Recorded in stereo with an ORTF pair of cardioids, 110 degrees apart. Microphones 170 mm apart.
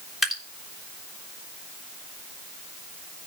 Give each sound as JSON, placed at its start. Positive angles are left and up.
{"t": 0.2, "sound": "dripping", "azimuth_deg": 0, "distance_m": 3.5}